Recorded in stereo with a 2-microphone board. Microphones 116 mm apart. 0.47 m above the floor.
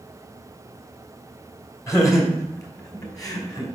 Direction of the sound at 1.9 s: 25° left (ahead or behind).